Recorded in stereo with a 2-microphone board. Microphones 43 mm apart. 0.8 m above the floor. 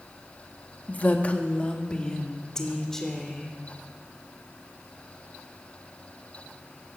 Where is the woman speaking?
40° left (ahead or behind), 1.4 m; by 3.5 s 5° left (ahead or behind), 3 m.